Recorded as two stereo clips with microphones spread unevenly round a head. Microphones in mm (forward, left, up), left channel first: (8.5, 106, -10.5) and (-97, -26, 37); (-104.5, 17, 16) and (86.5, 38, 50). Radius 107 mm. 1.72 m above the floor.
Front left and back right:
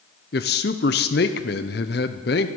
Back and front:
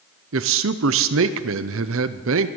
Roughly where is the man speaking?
Ahead.